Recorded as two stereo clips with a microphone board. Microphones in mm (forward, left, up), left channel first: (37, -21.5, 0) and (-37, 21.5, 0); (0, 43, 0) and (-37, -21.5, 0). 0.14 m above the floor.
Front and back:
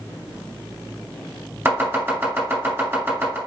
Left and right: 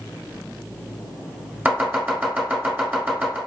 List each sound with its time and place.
1.6 s chopping: 170° right, 1.5 m